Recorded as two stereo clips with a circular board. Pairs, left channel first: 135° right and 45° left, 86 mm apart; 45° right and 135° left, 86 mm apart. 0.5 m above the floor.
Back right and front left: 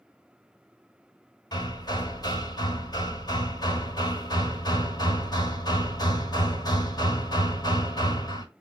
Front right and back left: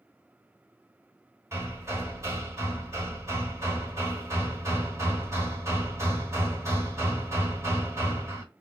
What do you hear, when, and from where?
1.5 s hammering: 170° right, 1.2 m